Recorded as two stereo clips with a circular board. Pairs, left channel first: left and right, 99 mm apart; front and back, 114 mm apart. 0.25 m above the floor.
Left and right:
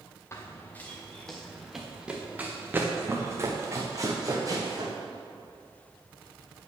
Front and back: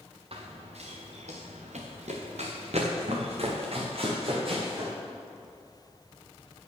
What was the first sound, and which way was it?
Running footsteps, 150° left.